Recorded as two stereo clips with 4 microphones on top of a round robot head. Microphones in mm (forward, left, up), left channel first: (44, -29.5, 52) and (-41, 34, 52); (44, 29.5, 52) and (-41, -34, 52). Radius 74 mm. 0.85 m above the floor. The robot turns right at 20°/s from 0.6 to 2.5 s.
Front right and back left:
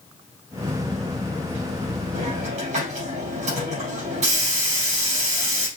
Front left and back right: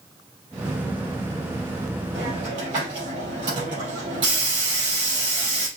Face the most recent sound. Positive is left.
turn(degrees=165)